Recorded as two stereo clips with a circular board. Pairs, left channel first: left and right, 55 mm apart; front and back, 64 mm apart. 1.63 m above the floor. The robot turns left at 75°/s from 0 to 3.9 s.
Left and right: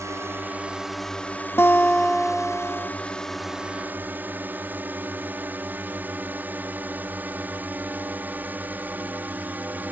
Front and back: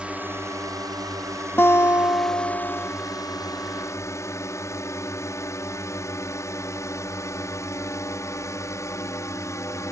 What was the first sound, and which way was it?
A drone, 105° right.